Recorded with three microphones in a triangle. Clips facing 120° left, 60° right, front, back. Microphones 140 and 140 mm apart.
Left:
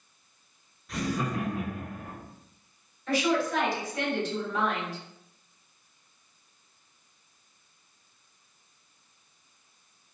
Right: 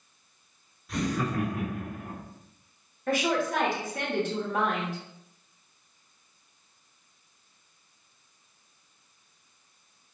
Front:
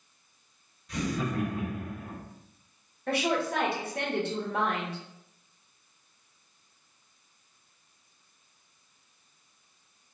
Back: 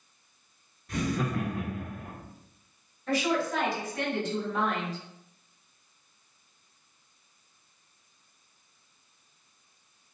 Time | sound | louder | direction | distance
0.9 | laughter | right 1 dB, back 1 dB | 150° right | 1.0 m
3.1 | a woman speaking | even, even | 25° right | 1.2 m